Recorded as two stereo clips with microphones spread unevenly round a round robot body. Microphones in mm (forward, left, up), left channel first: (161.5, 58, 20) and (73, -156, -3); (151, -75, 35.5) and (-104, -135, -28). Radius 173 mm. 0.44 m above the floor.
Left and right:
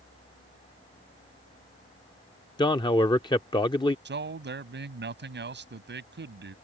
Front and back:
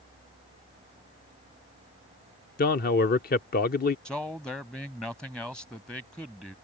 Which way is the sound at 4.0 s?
80° right.